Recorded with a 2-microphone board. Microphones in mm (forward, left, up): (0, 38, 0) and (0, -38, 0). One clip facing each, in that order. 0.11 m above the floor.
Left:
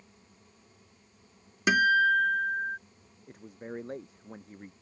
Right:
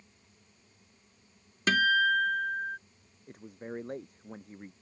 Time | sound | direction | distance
1.7 | a guitar | 15° left (ahead or behind) | ?
3.3 | a man speaking | centre (ahead or behind) | ?